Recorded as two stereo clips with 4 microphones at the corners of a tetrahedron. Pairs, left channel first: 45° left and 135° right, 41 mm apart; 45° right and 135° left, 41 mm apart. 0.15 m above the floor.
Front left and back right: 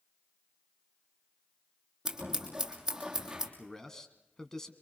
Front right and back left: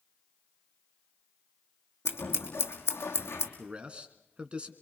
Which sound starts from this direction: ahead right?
Scissors, at 2.0 s.